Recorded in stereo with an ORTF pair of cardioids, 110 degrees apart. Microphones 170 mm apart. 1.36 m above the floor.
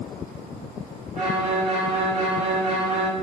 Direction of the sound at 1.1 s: 40° right.